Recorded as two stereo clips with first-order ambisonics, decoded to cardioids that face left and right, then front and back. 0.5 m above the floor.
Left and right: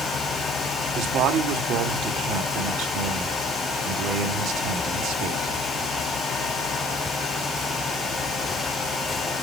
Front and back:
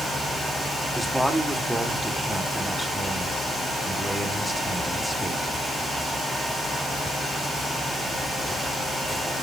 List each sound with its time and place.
0.9 s a man speaking: 90° right, 1.4 m